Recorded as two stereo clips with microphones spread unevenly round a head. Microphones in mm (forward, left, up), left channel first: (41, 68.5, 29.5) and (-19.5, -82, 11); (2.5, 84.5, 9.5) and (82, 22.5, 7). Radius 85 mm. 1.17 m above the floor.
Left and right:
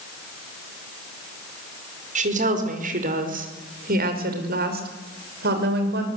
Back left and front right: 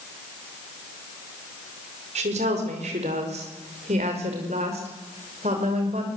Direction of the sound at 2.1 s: 65° right.